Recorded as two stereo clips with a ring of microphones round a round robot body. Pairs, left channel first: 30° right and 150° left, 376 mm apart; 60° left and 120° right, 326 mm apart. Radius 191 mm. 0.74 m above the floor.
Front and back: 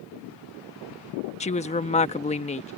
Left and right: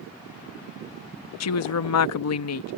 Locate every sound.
1.4 s a woman speaking: 40° left